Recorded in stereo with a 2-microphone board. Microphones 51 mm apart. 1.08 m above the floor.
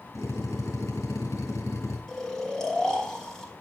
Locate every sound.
0.1 s a drill: 75° left (ahead or behind), 4.5 m
2.1 s snoring: 10° left (ahead or behind), 3 m